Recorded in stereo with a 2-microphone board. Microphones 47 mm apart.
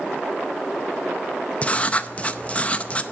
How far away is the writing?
About 0.5 m.